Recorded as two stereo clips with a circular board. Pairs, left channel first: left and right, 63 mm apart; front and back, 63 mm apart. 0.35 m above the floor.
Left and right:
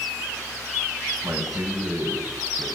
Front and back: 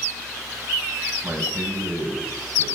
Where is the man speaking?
120° right, 1.7 m; by 2.7 s 90° right, 2.0 m.